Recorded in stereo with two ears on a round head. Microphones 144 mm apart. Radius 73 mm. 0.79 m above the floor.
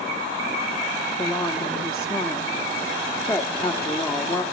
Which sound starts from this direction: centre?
A woman speaking, at 1.2 s.